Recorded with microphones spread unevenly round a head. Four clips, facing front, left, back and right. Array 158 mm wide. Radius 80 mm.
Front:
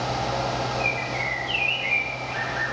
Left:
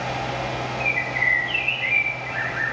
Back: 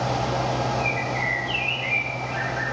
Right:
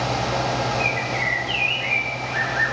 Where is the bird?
60° right, 0.8 m.